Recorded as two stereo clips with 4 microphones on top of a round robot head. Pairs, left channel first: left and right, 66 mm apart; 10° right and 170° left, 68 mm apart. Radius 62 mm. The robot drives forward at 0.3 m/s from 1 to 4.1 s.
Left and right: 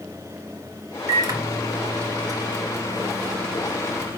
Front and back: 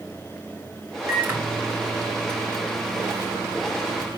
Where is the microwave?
125° right, 2.5 m; by 4.2 s 140° right, 3 m.